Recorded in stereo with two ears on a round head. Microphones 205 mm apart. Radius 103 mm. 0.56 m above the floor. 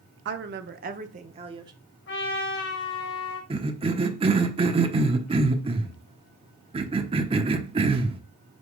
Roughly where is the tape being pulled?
No tape being pulled in this recording.